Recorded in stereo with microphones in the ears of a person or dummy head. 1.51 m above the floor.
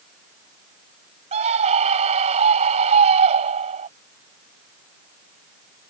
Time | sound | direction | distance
1.3 | a scream | 35° right (ahead or behind) | ?